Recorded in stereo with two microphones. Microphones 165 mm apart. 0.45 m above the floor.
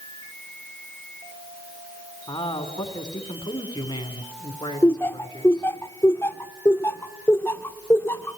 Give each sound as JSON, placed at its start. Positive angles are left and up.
{"t": 2.3, "sound": "a man speaking", "side_deg": 25, "distance_m": 4.0}
{"t": 4.8, "sound": "laughter", "side_deg": 15, "distance_m": 0.9}